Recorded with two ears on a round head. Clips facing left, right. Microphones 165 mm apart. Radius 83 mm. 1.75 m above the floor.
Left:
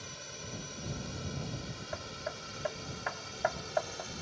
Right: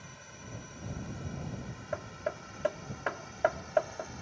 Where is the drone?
50° left (ahead or behind); by 4.2 s 45° left (ahead or behind).